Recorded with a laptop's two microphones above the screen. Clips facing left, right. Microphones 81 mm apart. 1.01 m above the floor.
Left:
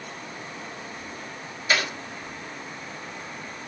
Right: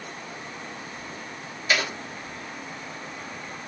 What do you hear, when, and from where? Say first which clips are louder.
1.7 s a clap: even; 25° left (ahead or behind), 5 m